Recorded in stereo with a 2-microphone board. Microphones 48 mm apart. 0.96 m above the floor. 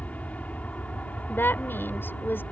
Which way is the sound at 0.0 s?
30° left (ahead or behind).